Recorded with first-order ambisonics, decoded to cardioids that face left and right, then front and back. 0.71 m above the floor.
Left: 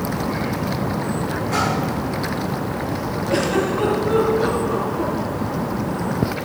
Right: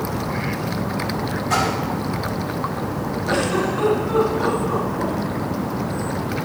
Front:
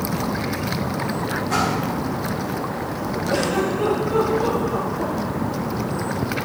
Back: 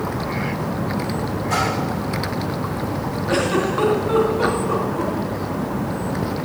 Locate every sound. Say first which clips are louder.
1.5 s a splash: right 1 dB, back 1 dB; 105° right, 4 m
3.3 s a giggle: left 1 dB, back 2 dB; 165° right, 3.5 m